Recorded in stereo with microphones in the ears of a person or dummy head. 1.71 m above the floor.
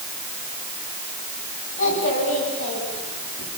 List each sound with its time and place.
1.8 s a child speaking: 50° left (ahead or behind), 10 m